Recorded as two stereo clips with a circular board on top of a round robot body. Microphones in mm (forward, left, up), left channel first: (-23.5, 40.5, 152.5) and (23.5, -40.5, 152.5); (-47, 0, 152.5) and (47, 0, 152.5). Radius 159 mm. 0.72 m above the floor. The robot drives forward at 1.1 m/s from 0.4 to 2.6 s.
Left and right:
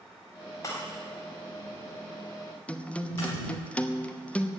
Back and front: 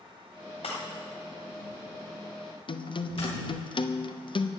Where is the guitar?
165° right, 1.1 m.